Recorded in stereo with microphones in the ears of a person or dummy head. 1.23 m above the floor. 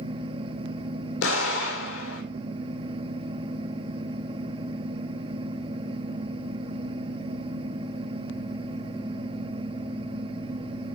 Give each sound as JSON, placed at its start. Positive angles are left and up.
{"t": 1.2, "sound": "an explosion", "side_deg": 80, "distance_m": 2.5}